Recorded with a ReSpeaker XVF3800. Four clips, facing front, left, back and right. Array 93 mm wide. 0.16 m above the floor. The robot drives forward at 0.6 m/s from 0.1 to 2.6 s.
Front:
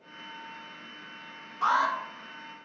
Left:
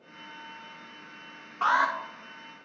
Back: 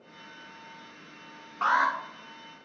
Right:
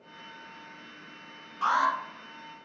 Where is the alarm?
140° left, 1.6 m; by 1.9 s 145° left, 1.7 m.